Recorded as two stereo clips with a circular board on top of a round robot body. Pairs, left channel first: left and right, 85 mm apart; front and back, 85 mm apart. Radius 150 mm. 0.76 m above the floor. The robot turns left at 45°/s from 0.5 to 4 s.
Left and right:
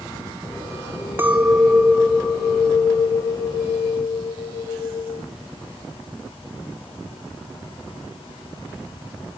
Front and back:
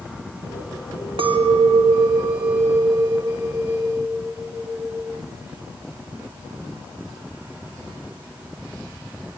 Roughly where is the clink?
Behind.